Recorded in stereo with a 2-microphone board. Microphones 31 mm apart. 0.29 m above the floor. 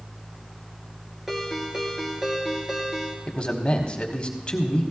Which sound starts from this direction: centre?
A ringtone, at 1.3 s.